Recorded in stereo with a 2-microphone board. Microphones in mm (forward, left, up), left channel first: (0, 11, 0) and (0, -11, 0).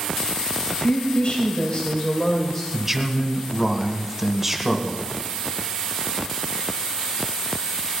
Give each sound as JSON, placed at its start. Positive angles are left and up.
{"t": 0.7, "sound": "a woman speaking", "side_deg": 65, "distance_m": 3.0}
{"t": 2.7, "sound": "a man speaking", "side_deg": -15, "distance_m": 2.0}